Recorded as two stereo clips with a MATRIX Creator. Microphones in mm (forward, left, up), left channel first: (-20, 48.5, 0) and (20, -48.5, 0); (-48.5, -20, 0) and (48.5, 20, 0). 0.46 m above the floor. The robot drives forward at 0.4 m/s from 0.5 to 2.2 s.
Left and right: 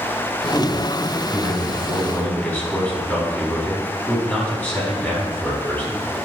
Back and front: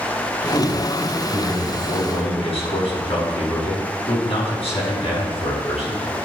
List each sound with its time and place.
0.5 s a man speaking: 170° right, 3.5 m; by 6.2 s 175° right, 4.5 m